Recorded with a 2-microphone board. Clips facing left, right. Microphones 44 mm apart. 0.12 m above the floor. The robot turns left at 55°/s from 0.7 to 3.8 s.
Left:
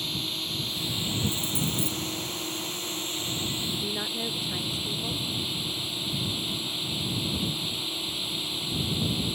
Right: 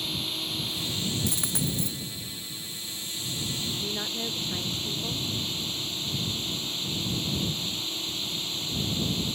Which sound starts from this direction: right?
A dropped coin, at 1.3 s.